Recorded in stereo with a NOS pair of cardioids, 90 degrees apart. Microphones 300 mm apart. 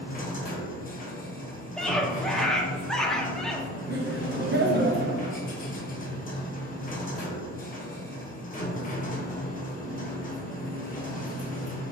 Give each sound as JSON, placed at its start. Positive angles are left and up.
{"t": 0.0, "sound": "a machine running", "azimuth_deg": 30, "distance_m": 0.9}
{"t": 1.8, "sound": "a scream", "azimuth_deg": 0, "distance_m": 0.6}
{"t": 3.9, "sound": "laughter", "azimuth_deg": -35, "distance_m": 0.8}